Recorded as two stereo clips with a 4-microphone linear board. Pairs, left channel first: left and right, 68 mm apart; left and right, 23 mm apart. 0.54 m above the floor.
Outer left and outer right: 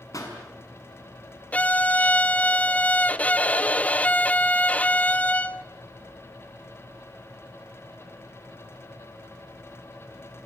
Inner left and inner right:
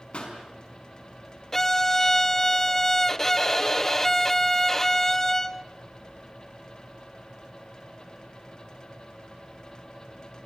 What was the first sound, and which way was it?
A pop, 50° left (ahead or behind).